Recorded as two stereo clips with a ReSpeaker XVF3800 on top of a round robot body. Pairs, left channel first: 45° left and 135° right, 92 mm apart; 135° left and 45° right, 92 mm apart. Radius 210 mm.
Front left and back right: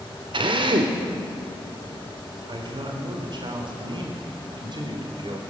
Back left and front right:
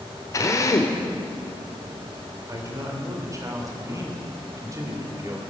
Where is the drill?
170° right, 1.2 m.